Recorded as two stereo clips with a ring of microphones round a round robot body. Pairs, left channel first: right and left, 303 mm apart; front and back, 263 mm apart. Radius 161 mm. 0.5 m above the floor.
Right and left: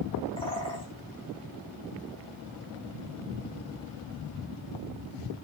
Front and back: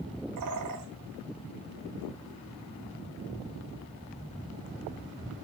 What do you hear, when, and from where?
0.4 s a bird: 165° right, 5 m